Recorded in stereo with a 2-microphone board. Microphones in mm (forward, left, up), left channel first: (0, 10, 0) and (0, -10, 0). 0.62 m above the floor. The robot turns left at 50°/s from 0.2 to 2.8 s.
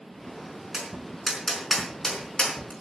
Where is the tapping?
40° right (ahead or behind), 4 m; by 2.7 s 60° left (ahead or behind), 4 m.